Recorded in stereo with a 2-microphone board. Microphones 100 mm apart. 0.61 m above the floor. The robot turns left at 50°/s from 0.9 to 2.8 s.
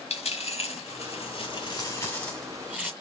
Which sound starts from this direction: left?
A dropped coin, at 0.1 s.